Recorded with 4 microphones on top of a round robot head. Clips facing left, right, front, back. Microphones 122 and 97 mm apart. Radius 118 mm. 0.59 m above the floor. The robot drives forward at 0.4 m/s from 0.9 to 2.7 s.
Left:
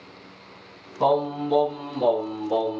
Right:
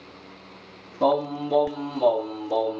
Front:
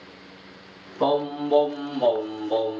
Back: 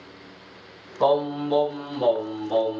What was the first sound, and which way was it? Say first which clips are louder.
Singing: left 1 dB, back 2 dB; 110° left.